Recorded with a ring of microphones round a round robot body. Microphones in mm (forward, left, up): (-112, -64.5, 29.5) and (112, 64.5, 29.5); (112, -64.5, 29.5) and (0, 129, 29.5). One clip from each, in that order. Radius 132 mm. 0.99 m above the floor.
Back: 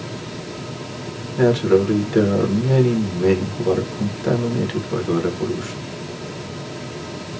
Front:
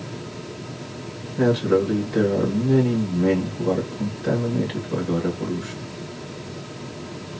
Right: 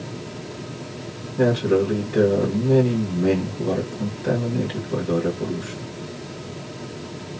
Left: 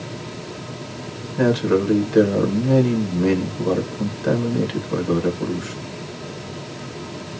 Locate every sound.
1.4 s a man speaking: 155° left, 1.3 m